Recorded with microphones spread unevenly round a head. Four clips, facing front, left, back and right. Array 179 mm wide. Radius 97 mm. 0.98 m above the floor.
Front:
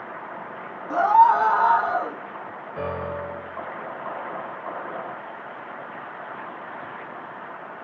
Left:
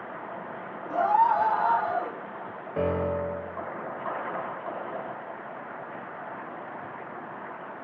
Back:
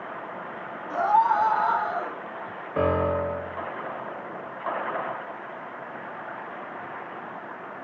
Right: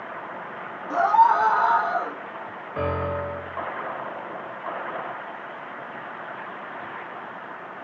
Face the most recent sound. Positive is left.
turn(degrees=165)